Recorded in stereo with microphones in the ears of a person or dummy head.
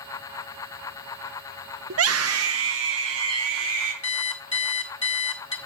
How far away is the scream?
About 0.6 m.